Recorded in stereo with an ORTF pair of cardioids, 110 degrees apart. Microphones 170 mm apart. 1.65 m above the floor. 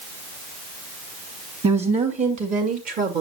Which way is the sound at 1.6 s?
40° right.